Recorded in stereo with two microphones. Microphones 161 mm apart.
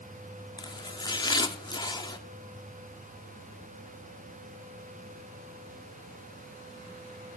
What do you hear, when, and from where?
0.6 s chopping: 25° left (ahead or behind), 0.7 m